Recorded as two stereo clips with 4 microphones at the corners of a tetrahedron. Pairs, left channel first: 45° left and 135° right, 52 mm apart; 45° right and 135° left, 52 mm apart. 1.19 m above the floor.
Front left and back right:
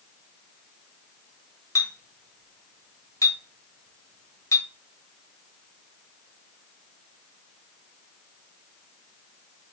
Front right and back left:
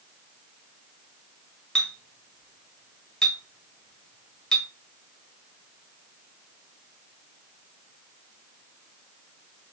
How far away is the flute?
No flute in this recording.